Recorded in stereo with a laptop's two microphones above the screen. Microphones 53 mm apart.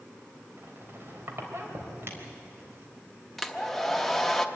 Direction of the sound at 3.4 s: 5° left (ahead or behind).